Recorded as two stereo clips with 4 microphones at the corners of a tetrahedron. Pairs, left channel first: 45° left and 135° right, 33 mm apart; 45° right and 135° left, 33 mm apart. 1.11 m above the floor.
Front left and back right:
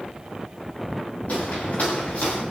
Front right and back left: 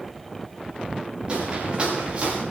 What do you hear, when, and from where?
1.3 s footsteps: 75° left, 6.5 m